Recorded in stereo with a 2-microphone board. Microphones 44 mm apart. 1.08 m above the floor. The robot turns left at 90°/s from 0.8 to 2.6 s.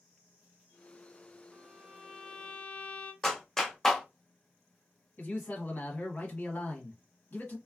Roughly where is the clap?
Centre.